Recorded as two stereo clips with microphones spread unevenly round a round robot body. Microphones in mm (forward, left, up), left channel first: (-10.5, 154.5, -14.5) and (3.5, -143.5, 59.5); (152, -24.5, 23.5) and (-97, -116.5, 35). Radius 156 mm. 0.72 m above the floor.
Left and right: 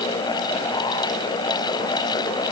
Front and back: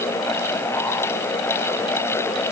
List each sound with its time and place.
Only background noise.